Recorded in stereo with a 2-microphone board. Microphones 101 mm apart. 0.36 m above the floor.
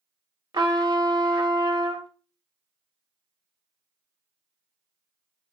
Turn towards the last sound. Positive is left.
turn(degrees=-50)  # may be behind; listen again after turning